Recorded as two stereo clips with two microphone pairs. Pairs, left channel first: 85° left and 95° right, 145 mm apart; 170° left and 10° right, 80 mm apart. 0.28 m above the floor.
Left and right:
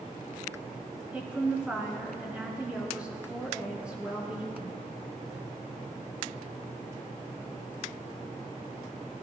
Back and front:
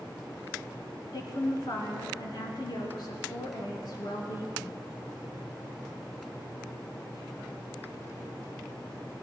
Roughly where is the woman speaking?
Behind.